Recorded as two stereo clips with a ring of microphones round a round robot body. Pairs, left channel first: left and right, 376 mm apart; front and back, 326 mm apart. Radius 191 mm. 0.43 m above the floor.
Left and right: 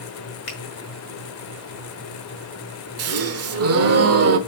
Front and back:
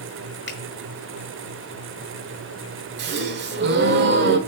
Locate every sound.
0.5 s a finger snap: 55° left, 5 m
3.0 s a gasp: 130° right, 1.3 m